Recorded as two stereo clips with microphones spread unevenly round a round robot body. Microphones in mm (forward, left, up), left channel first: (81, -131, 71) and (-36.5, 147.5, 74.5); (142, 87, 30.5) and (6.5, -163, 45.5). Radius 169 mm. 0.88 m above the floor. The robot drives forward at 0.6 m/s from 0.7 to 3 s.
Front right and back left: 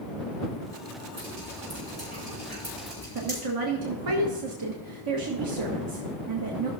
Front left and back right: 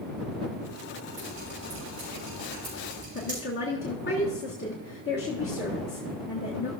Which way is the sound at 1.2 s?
175° left.